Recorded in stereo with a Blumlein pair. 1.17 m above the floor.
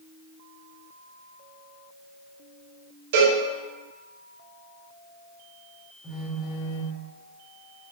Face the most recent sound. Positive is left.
turn(degrees=10)